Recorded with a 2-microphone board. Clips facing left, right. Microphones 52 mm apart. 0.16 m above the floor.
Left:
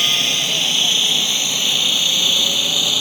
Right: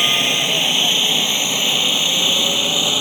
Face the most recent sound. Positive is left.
turn(degrees=-20)  # may be behind; listen again after turning